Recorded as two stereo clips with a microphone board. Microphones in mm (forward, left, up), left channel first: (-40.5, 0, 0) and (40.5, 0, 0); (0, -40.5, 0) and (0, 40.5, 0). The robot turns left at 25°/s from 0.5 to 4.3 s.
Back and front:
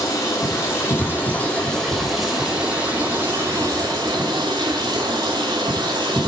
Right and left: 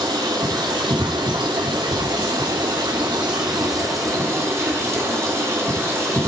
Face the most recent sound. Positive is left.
turn(degrees=35)